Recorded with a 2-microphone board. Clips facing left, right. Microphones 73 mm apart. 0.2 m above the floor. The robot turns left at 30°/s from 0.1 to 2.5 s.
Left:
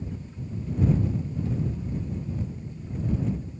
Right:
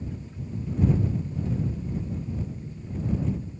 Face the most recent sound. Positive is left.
No sound to turn to.